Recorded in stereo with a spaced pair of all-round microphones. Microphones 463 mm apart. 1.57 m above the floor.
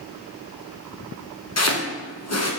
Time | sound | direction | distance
1.6 | chopping | 35° left (ahead or behind) | 0.8 m